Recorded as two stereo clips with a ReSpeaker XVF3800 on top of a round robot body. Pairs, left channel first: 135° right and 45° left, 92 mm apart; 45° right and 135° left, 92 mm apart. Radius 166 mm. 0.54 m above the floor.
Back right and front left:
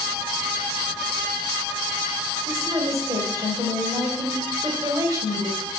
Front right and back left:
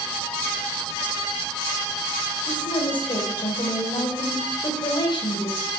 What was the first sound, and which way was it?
A woman speaking, 10° right.